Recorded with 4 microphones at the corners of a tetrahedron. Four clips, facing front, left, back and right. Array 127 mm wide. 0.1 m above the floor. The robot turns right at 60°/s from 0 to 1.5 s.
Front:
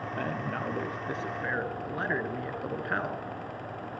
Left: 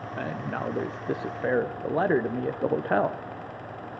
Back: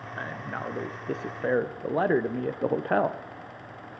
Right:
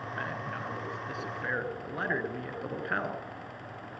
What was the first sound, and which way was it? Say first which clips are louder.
A man speaking: left 7 dB, front 1 dB; 50° left.